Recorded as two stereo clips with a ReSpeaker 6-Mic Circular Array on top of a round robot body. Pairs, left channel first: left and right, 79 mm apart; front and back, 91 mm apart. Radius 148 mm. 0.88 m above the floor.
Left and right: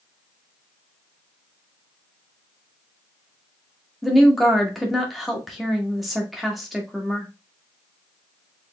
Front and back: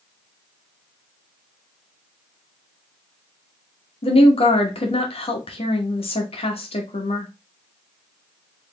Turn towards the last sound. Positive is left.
turn(degrees=0)